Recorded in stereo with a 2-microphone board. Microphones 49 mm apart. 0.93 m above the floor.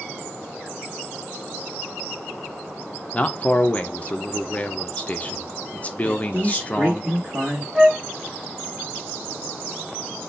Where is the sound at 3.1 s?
30° left (ahead or behind), 0.6 m.